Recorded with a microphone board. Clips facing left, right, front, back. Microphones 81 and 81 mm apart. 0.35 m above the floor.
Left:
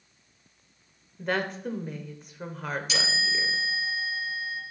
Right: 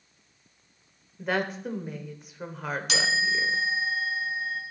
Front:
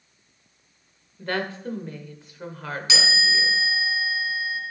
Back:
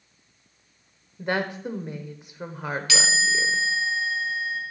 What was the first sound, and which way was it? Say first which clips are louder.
A woman speaking: even, back 1 dB; 170° right.